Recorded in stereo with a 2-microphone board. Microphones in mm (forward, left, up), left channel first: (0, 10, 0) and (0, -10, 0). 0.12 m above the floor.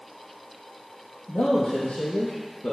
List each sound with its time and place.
1.3 s a man speaking: 60° left (ahead or behind), 3.5 m; by 2.7 s 65° left (ahead or behind), 3 m